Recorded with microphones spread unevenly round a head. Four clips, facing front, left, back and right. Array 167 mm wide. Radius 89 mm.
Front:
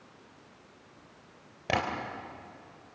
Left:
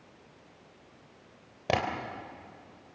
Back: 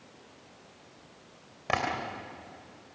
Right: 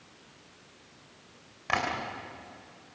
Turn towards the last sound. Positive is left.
turn(degrees=85)